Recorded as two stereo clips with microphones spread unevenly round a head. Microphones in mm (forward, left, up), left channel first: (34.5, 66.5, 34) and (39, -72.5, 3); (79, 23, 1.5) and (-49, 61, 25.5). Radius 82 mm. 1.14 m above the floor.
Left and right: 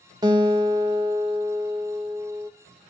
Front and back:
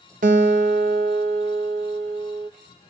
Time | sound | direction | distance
0.2 | a guitar | 150° right | 1.1 m